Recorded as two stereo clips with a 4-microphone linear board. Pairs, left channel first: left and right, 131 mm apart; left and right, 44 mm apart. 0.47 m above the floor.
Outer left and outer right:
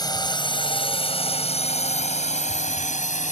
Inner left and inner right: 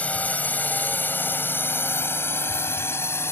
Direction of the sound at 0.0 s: 30° left (ahead or behind).